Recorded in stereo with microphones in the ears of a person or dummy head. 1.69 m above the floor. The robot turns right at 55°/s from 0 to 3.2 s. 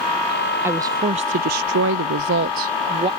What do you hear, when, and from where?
0.6 s a woman speaking: 170° right; by 3.1 s 30° right